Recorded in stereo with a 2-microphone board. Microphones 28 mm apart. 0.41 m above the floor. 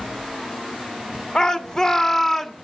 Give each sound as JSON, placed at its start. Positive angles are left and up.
{"t": 1.4, "sound": "a shout", "side_deg": 25, "distance_m": 1.5}